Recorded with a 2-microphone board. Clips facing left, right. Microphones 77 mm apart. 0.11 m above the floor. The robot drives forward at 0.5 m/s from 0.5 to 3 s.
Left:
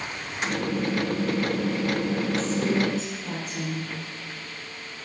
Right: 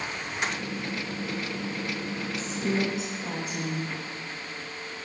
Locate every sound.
2.4 s a woman speaking: 15° right (ahead or behind), 4 m; by 3.9 s 10° right (ahead or behind), 4 m